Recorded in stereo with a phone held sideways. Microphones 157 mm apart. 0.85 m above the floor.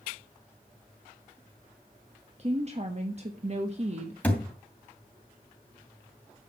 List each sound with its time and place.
2.4 s a woman speaking: 45° right (ahead or behind), 1.3 m
4.2 s a thud: 10° left (ahead or behind), 2.5 m